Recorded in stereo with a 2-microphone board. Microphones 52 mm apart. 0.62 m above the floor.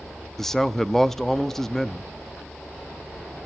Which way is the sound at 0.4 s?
10° left (ahead or behind).